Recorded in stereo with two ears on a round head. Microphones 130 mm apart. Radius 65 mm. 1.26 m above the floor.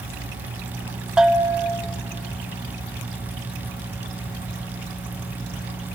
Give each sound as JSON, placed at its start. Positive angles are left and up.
{"t": 1.2, "sound": "a bell", "side_deg": -5, "distance_m": 1.9}